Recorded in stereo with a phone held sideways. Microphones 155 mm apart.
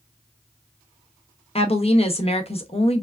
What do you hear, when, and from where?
1.6 s a woman speaking: 40° left (ahead or behind), 0.8 m